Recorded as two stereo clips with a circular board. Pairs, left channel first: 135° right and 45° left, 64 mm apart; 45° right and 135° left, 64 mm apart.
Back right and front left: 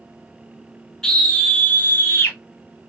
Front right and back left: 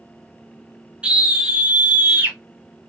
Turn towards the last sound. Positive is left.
turn(degrees=-170)